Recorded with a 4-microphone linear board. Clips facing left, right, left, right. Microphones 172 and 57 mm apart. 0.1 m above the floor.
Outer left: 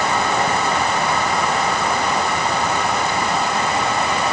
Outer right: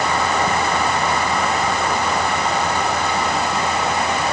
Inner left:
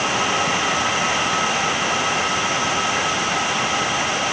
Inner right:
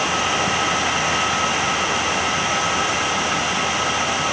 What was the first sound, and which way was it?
Only background noise.